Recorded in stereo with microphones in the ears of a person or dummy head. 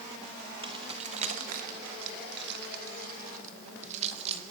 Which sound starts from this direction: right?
Keys jangling, at 0.6 s.